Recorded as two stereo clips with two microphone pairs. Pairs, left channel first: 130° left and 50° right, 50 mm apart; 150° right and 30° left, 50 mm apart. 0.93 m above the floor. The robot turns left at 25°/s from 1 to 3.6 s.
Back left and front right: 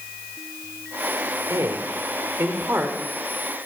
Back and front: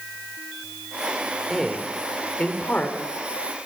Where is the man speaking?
60° right, 3.5 m; by 3.0 s 100° right, 3.5 m.